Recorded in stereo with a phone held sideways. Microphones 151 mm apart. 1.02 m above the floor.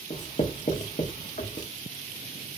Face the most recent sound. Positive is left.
turn(degrees=55)  # may be behind; listen again after turning